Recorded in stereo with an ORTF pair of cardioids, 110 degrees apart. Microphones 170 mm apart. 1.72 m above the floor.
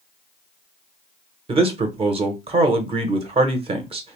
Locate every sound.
1.5 s a man speaking: 35° right, 0.9 m